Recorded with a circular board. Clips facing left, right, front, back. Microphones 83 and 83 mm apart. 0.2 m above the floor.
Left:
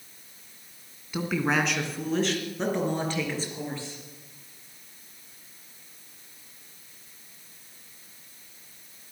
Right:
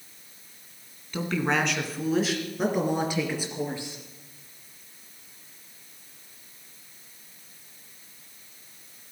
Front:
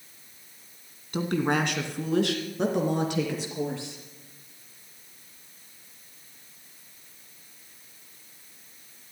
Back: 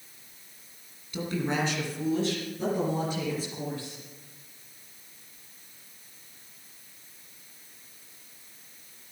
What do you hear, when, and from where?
1.1 s a woman speaking: 10° left, 1.9 m; by 4.0 s 15° right, 4 m